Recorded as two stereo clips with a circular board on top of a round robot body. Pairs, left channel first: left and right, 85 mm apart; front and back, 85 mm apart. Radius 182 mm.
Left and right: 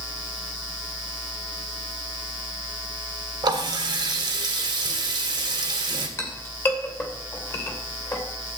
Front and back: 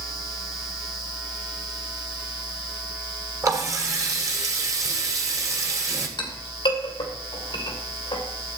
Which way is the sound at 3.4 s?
125° right.